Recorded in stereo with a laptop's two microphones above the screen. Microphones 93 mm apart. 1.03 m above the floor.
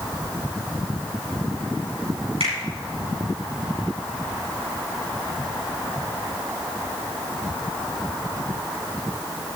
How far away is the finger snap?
About 8.5 m.